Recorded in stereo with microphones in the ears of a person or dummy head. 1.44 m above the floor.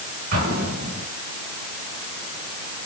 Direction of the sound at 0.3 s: 50° right (ahead or behind).